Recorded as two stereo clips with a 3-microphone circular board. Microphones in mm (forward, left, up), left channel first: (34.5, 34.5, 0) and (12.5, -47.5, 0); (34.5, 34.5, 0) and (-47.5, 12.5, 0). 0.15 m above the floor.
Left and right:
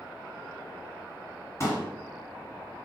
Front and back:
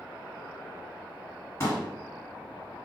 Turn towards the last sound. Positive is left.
turn(degrees=50)